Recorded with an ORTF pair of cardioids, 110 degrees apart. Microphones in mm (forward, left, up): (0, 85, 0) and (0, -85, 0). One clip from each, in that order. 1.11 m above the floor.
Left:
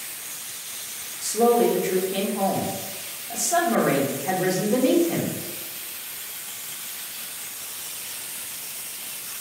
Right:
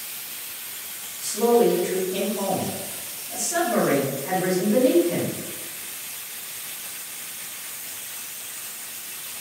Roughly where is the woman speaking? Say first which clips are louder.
Even; ahead left.